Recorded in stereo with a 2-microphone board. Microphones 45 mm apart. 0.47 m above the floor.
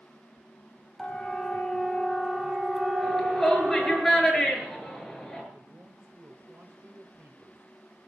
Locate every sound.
1.0 s a siren: 15° left (ahead or behind), 3 m; by 4.0 s 20° right (ahead or behind), 2.5 m
3.0 s a shout: 5° left (ahead or behind), 6.5 m
5.5 s a man speaking: 45° right (ahead or behind), 2 m